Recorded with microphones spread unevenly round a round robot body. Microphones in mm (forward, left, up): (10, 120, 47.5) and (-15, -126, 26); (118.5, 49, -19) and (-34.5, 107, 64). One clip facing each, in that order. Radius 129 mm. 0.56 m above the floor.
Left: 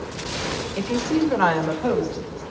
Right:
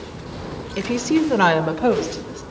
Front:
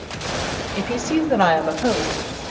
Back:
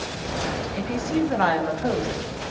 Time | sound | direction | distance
0.8 | a woman speaking | 35° right | 1.1 m